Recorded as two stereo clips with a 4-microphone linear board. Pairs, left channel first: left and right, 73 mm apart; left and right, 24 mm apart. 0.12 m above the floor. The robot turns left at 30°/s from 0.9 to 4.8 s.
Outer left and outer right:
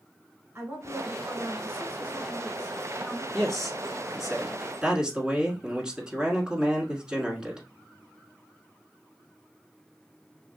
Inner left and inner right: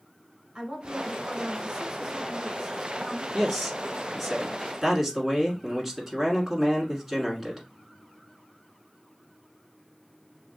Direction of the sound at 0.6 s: 25° right (ahead or behind).